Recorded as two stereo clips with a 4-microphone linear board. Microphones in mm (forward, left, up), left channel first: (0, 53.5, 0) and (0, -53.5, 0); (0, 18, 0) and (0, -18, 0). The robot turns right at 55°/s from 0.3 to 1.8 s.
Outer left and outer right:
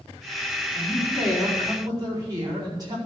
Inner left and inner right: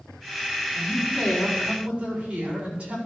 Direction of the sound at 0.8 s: 160° left.